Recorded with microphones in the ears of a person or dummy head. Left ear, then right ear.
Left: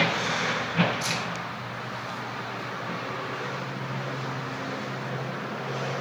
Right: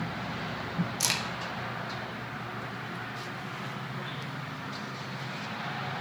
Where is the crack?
60° right (ahead or behind), 1.5 m.